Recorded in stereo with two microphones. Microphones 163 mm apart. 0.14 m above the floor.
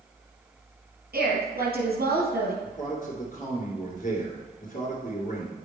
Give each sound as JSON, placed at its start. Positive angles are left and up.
{"t": 1.1, "sound": "a woman speaking", "side_deg": -65, "distance_m": 3.5}
{"t": 2.6, "sound": "a man speaking", "side_deg": 55, "distance_m": 2.5}